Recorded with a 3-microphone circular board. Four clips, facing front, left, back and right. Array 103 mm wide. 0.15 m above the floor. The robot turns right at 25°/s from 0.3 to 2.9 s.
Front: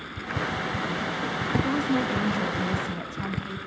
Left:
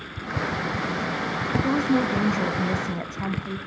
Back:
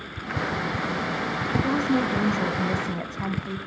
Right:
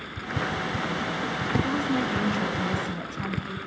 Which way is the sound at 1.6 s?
100° left.